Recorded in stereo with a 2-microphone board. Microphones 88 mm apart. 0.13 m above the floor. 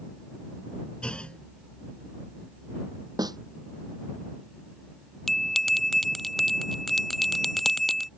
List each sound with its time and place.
1.0 s a clunk: 10° left (ahead or behind)
3.2 s a snare drum: 50° right (ahead or behind)
5.3 s a bell: 5° left (ahead or behind)